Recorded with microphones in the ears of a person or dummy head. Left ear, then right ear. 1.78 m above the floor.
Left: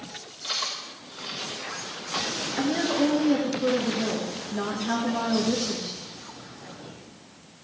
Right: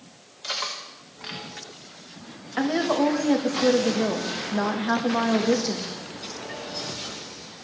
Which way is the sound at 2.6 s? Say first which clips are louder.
Right 3 dB; 35° right (ahead or behind).